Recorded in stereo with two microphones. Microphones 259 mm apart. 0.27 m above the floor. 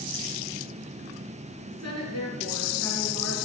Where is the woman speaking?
75° left (ahead or behind), 5 m; by 3.5 s 70° left (ahead or behind), 5 m.